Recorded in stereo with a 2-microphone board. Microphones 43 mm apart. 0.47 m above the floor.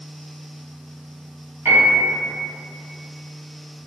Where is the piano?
65° right (ahead or behind), 1.8 m.